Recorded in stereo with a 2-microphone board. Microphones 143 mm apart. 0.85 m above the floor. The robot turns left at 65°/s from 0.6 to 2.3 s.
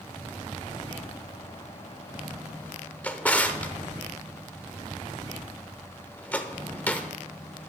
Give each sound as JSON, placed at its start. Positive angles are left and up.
{"t": 3.0, "sound": "a drawer", "side_deg": 10, "distance_m": 0.8}